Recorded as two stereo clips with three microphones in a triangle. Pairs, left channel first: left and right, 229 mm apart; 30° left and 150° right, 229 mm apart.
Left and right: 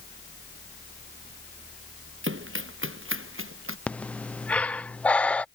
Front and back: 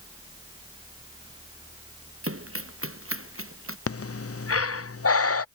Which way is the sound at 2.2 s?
125° right.